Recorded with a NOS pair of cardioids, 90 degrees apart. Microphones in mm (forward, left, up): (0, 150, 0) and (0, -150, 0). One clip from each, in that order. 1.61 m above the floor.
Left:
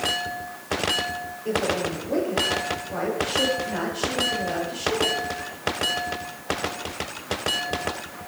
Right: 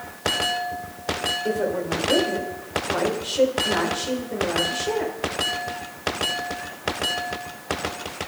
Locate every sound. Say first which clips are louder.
1.4 s a woman speaking: right 1 dB; 60° right, 7.5 m